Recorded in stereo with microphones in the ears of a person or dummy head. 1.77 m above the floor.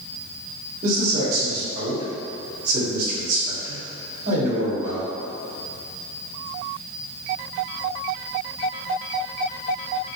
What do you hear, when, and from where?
0.8 s a man speaking: 55° right (ahead or behind), 1.9 m